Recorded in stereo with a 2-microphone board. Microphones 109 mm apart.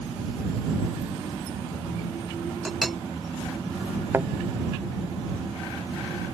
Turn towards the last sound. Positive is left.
turn(degrees=-20)  # may be behind; listen again after turning